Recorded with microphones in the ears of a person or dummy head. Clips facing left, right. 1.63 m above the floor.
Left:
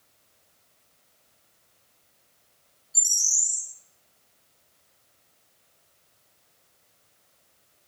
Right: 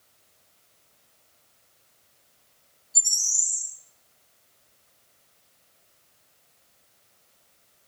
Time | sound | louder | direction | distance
2.9 | a bird | even | 10° left (ahead or behind) | 2.5 m